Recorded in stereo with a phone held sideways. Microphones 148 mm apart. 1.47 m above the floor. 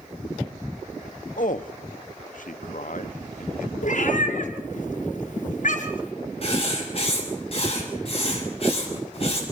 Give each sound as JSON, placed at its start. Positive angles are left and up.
{"t": 1.4, "sound": "a man speaking", "side_deg": 65, "distance_m": 0.9}
{"t": 3.8, "sound": "a cat meowing", "side_deg": 60, "distance_m": 3.5}
{"t": 6.4, "sound": "writing", "side_deg": 45, "distance_m": 5.5}